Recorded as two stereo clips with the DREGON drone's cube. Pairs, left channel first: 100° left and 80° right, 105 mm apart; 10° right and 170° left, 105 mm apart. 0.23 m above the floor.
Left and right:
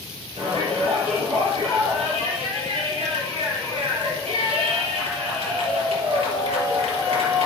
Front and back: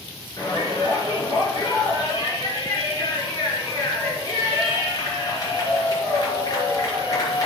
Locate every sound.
0.4 s a shout: 65° right, 5 m